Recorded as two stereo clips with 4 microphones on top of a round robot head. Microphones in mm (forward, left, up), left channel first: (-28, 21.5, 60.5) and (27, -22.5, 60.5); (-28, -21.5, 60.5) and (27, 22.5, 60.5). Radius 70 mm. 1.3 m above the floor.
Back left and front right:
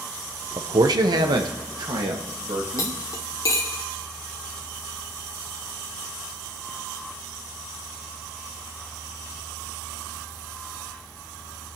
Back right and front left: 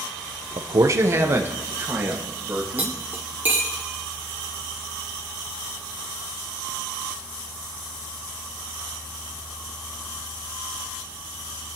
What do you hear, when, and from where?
0.6 s a man speaking: straight ahead, 0.6 m; by 3.0 s 30° right, 2.5 m
2.8 s cutlery clinking: 100° left, 0.6 m